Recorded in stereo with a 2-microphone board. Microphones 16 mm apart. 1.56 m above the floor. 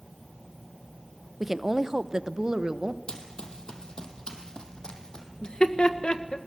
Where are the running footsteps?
60° left (ahead or behind), 3 m; by 5.3 s 50° left (ahead or behind), 4 m.